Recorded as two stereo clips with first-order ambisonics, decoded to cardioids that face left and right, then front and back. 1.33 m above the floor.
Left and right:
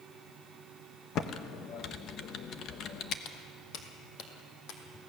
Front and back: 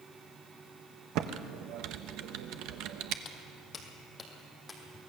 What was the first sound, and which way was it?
Typing on a keyboard, 145° left.